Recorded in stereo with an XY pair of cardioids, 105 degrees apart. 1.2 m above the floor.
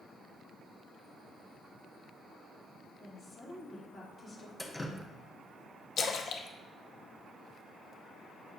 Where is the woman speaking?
35° left, 3 m.